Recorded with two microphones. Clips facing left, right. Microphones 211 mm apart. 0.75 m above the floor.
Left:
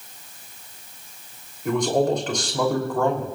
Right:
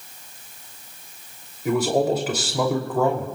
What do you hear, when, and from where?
1.6 s a man speaking: 5° right (ahead or behind), 3 m